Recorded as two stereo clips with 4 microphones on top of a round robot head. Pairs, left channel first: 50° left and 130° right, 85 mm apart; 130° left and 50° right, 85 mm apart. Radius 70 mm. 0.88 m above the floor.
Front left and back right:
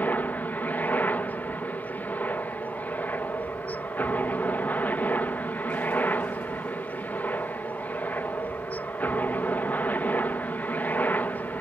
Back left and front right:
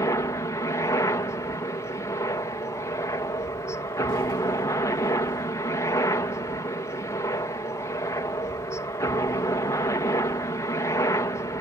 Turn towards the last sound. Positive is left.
turn(degrees=110)